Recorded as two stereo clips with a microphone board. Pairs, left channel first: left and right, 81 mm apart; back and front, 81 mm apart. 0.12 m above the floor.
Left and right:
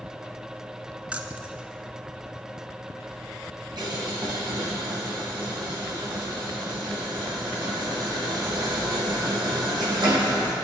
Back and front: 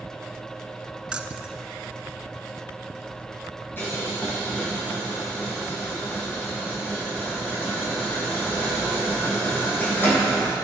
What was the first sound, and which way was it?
Keys jangling, 55° right.